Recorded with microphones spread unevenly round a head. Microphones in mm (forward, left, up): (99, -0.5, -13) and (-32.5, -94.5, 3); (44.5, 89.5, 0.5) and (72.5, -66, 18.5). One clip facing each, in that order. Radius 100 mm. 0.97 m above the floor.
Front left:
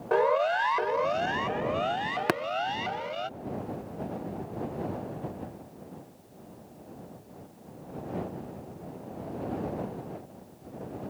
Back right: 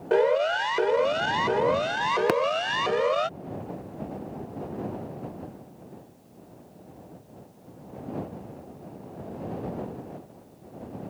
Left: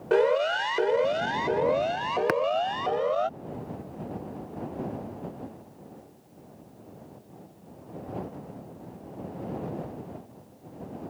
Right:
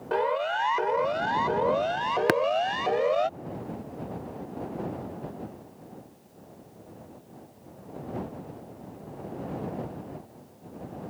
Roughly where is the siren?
Behind left.